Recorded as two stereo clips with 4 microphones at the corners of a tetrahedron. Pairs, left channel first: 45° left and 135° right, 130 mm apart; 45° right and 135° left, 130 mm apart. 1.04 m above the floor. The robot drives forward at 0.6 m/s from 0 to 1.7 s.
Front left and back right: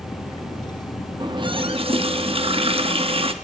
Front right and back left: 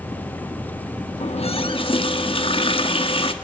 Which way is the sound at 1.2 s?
80° right.